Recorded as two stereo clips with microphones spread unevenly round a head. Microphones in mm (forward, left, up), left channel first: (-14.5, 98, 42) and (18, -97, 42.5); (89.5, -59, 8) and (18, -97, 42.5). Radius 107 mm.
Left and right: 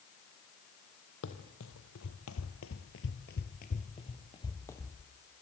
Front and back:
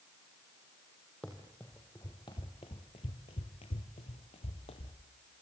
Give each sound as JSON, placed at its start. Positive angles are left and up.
{"t": 1.2, "sound": "running footsteps", "azimuth_deg": 125, "distance_m": 3.0}